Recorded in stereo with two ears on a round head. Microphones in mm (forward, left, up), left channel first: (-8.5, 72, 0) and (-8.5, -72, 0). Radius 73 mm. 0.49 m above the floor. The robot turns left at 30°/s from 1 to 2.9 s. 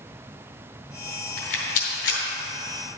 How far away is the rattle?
About 2.5 m.